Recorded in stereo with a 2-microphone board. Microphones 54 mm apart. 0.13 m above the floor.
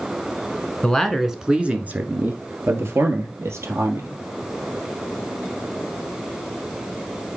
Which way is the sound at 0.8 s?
10° left (ahead or behind).